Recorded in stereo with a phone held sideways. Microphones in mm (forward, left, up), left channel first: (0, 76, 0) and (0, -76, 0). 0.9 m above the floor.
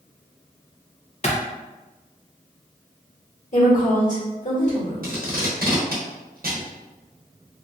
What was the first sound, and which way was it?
A clap, 45° left (ahead or behind).